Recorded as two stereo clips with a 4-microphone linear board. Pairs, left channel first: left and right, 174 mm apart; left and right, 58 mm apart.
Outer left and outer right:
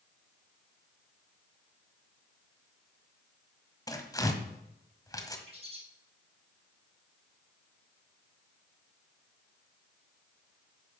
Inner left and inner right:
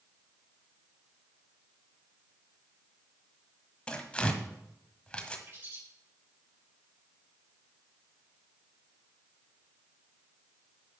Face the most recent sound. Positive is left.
turn(degrees=-35)  # may be behind; listen again after turning